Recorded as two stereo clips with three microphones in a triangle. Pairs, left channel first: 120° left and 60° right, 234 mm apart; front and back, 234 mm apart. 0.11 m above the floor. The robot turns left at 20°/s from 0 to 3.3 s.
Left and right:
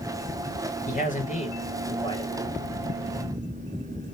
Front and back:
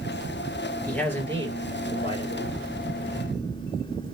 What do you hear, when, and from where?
0.9 s a man speaking: 85° left, 2.5 m; by 2.5 s 50° left, 2.5 m